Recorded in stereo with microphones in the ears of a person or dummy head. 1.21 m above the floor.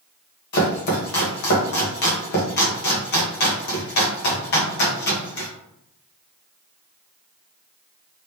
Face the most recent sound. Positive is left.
turn(degrees=50)  # may be behind; listen again after turning